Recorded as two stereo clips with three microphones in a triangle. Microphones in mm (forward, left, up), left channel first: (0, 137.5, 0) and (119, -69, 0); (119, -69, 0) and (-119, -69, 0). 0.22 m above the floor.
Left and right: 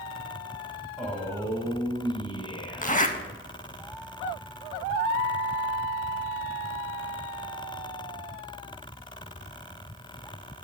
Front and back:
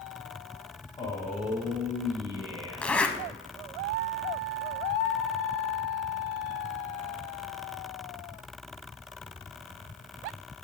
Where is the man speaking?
30° left, 1.1 m; by 3.1 s 175° right, 2 m.